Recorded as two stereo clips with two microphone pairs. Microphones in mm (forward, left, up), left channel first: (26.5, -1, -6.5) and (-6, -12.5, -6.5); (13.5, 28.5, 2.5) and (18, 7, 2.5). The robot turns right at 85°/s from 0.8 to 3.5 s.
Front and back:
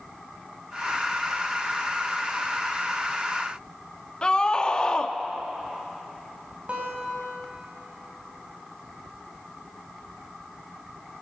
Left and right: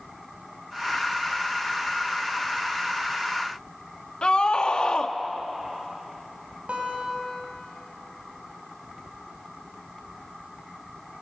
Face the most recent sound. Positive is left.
turn(degrees=-105)